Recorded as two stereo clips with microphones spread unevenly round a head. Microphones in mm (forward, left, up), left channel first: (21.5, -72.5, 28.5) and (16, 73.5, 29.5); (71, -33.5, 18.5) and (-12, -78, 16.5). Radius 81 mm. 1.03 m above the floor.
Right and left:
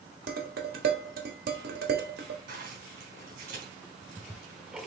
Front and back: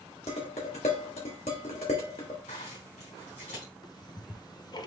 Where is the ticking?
5° left, 0.7 m.